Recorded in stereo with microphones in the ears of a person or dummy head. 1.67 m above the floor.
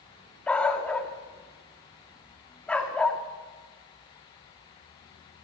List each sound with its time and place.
0.5 s a dog barking: 10° left (ahead or behind), 1.5 m